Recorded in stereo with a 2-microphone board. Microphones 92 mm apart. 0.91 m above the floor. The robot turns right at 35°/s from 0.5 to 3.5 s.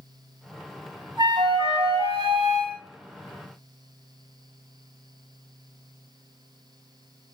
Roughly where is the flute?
Behind right.